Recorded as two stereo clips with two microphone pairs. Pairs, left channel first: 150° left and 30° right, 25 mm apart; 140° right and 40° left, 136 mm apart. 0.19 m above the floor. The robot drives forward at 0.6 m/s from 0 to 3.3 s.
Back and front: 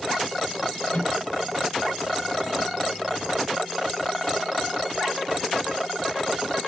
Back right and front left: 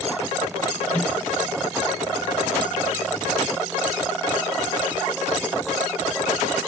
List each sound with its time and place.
0.9 s a microwave: 140° left, 4 m